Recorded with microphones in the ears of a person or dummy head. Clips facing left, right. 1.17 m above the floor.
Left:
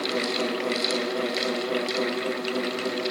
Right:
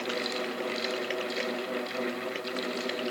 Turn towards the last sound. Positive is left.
No sound to turn to.